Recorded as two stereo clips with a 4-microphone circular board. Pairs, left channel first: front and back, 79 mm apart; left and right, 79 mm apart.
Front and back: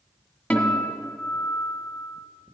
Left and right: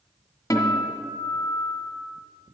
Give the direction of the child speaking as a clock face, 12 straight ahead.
No child speaking in this recording.